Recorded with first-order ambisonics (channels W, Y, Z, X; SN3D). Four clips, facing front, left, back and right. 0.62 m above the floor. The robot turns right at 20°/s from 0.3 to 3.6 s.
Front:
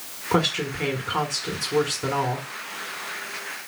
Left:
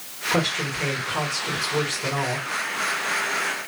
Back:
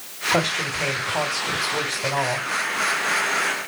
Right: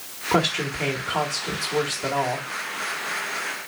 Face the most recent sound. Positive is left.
turn(degrees=15)